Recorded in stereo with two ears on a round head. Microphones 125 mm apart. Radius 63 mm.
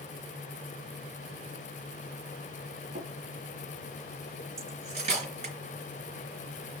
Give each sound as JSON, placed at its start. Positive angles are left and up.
{"t": 3.0, "sound": "tapping", "side_deg": -60, "distance_m": 3.5}
{"t": 4.6, "sound": "cutlery clinking", "side_deg": -45, "distance_m": 3.5}